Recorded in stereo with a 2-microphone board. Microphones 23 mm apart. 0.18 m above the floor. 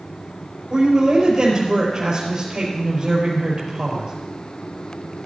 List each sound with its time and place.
0.7 s a woman speaking: 30° right (ahead or behind), 4.5 m